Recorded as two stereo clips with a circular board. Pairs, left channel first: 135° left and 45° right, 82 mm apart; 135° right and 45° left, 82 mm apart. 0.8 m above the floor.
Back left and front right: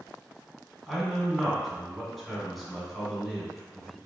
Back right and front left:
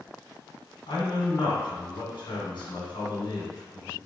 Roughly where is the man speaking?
Behind right.